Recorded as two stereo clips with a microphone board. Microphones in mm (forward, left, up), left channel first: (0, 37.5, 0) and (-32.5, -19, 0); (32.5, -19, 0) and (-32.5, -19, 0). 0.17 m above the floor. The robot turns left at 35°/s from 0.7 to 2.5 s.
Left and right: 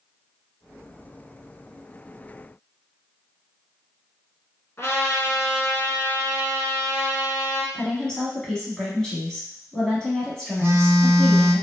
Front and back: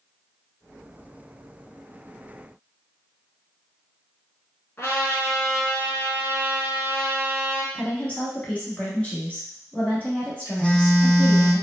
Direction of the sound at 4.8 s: 35° left.